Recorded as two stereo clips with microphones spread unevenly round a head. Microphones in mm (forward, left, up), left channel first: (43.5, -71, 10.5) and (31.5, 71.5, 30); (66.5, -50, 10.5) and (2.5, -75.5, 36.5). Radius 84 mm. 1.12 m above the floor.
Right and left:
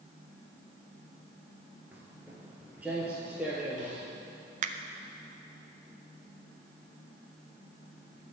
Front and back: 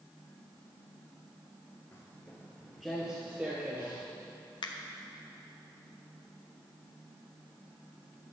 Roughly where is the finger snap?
Ahead left.